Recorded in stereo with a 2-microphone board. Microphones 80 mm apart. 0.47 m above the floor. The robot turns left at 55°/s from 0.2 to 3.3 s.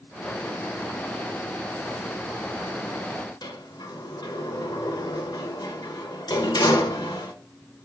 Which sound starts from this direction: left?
A sliding door, at 3.4 s.